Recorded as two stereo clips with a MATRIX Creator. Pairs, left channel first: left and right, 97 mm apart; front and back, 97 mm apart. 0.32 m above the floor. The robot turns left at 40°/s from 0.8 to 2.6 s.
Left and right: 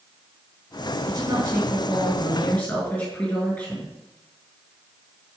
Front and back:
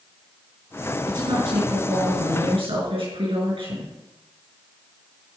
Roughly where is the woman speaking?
Behind right.